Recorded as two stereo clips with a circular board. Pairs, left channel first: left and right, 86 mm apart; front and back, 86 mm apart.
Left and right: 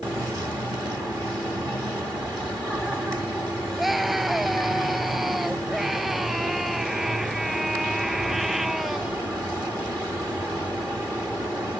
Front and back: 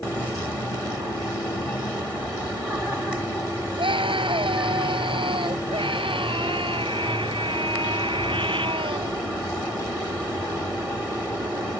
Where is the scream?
Straight behind.